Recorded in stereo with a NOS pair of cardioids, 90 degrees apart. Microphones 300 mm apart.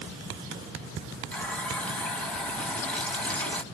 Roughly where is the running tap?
Ahead.